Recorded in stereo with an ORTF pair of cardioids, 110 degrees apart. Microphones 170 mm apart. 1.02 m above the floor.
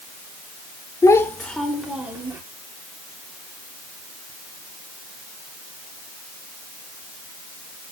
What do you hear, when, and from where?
1.0 s a child speaking: 20° left, 1.9 m; by 2.4 s 10° right, 3 m